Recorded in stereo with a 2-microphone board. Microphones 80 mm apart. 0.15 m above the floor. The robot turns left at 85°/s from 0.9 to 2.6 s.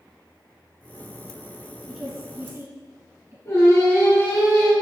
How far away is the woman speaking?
About 1.8 m.